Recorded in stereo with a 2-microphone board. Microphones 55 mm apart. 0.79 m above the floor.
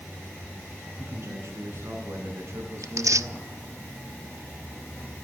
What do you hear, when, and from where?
1.0 s a man speaking: 50° right (ahead or behind), 9 m; by 3.5 s 65° right (ahead or behind), 8.5 m
2.8 s tearing paper: 75° right (ahead or behind), 0.9 m